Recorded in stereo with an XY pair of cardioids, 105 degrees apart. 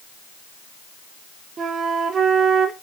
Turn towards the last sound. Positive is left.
turn(degrees=-45)